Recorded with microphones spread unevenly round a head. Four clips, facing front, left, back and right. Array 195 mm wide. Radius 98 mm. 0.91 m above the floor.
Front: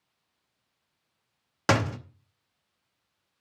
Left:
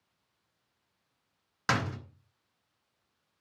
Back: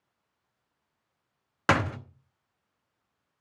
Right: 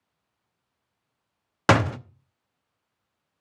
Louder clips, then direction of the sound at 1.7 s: Right 11 dB, even; 75° right.